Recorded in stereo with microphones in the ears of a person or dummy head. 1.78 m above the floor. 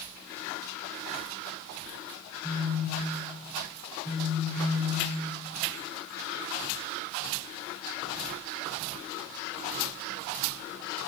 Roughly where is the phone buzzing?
Left.